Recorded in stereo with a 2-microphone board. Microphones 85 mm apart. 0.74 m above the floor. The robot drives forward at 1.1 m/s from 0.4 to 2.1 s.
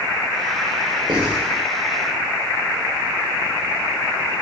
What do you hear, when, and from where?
1.1 s writing: 80° right, 1.9 m